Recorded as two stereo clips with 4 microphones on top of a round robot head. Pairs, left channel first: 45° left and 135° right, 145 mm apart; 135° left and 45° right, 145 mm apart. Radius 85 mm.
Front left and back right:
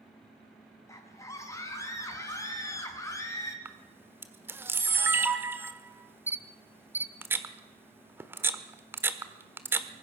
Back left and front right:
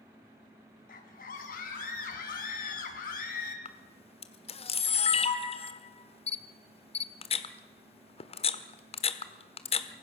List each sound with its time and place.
0.9 s a scream: 115° left, 4.5 m
3.6 s a camera shutter: 155° left, 1.4 m